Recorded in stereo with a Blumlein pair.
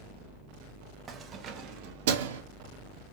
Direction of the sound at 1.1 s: 15° right.